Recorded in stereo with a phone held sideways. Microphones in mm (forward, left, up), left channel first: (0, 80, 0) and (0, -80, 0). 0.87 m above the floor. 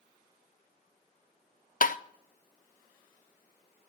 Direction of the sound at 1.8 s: 55° left (ahead or behind).